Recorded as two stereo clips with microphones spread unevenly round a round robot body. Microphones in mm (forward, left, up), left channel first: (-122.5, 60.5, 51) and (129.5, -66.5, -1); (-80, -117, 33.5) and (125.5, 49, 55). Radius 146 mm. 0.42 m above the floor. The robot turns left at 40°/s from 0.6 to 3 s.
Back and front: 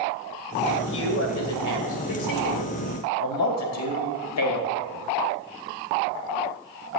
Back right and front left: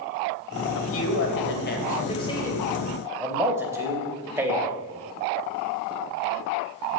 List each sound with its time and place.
0.8 s a man speaking: 150° right, 2.5 m; by 4.7 s 120° left, 2.5 m